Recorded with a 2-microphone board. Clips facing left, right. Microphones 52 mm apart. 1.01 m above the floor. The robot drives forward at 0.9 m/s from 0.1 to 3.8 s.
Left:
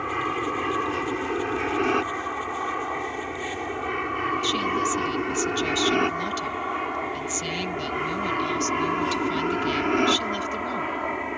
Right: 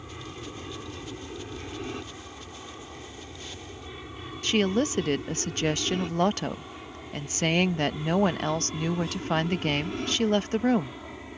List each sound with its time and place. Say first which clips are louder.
0.0 s an aircraft: left 14 dB; 65° left (ahead or behind); by 11.4 s 60° left (ahead or behind)
4.4 s a woman speaking: left 1 dB; 50° right (ahead or behind)